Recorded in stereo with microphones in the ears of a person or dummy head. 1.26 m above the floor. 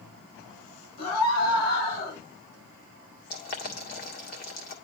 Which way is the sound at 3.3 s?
45° left (ahead or behind).